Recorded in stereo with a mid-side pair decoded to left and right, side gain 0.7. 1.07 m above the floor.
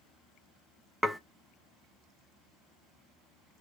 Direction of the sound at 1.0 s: 5° right.